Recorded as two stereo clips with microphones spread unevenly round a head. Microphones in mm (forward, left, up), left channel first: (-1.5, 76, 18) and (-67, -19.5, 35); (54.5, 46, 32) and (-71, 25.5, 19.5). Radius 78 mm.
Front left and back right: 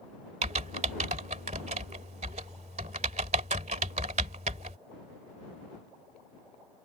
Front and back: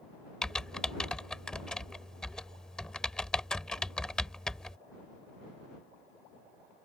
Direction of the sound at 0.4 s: 75° right.